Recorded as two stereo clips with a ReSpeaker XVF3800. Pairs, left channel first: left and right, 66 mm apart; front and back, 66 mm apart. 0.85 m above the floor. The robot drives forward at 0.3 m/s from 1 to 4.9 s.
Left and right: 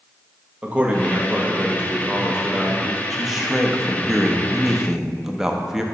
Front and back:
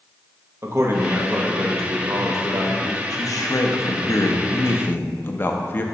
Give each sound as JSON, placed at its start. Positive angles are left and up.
{"t": 0.6, "sound": "a man speaking", "azimuth_deg": -155, "distance_m": 0.9}
{"t": 3.1, "sound": "a man speaking", "azimuth_deg": -5, "distance_m": 0.9}